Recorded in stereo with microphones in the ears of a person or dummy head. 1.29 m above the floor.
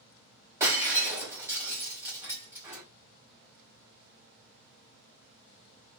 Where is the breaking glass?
15° right (ahead or behind), 1.5 m.